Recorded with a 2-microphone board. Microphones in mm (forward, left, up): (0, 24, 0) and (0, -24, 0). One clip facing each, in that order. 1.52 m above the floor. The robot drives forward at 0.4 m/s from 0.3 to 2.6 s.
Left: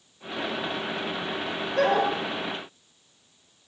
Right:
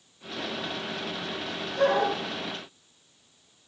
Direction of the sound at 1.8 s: 70° left (ahead or behind).